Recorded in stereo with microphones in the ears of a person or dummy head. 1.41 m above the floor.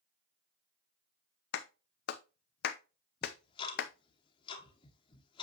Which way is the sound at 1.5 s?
55° left (ahead or behind).